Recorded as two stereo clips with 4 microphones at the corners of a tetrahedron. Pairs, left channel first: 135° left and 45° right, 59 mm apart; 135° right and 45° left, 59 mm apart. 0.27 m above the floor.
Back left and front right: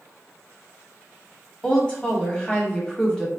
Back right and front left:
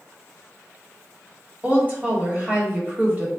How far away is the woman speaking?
About 1.0 m.